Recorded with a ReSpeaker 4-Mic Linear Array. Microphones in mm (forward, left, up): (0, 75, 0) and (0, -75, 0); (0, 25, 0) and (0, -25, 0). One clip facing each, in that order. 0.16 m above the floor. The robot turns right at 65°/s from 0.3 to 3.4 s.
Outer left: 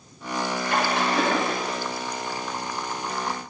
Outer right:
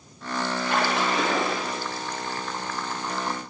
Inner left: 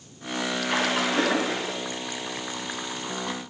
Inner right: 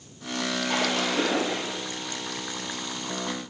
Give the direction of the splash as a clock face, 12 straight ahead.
10 o'clock.